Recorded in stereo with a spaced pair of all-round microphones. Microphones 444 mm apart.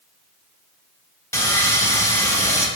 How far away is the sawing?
About 1.3 m.